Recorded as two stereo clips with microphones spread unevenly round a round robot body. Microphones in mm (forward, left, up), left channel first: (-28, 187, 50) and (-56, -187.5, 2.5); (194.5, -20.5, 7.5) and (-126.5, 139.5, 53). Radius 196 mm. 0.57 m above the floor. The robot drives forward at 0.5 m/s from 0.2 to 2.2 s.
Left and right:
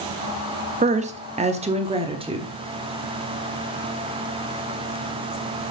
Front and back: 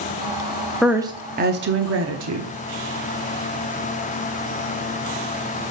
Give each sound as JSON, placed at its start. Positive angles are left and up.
{"t": 0.8, "sound": "a woman speaking", "azimuth_deg": -100, "distance_m": 0.6}